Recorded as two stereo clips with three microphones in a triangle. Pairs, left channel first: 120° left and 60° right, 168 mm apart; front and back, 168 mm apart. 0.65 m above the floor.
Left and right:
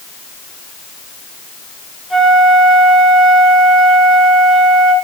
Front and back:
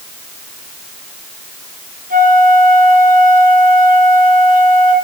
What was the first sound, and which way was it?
A flute, 150° right.